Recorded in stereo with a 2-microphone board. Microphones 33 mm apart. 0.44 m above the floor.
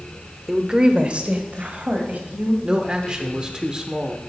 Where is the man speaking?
30° right (ahead or behind), 0.8 m.